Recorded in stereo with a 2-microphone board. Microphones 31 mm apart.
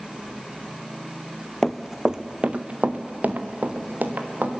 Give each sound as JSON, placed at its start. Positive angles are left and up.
{"t": 1.6, "sound": "running footsteps", "side_deg": 10, "distance_m": 0.9}